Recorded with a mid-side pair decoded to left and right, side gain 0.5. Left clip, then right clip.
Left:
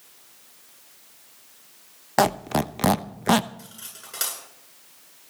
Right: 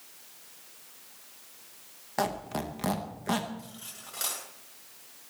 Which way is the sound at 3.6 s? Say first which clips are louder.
Left 3 dB; 45° left.